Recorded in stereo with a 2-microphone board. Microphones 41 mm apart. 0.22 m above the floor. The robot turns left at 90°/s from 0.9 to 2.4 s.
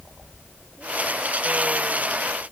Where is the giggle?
I don't hear a giggle.